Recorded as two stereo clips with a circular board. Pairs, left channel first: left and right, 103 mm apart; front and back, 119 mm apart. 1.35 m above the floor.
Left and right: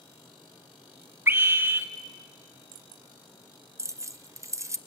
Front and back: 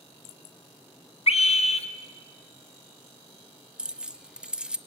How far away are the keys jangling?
About 0.6 m.